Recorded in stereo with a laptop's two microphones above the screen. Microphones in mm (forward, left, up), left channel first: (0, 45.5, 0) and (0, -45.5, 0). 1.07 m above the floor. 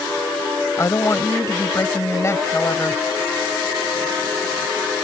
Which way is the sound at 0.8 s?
30° left (ahead or behind).